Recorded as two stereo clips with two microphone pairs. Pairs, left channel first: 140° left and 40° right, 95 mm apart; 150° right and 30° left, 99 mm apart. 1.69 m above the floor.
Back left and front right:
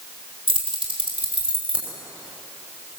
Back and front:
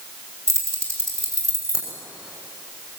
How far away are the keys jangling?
About 6 m.